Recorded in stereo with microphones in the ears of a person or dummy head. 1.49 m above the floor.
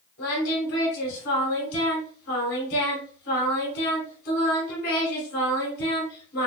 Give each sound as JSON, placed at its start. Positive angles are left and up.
{"t": 0.2, "sound": "singing", "side_deg": 75, "distance_m": 2.5}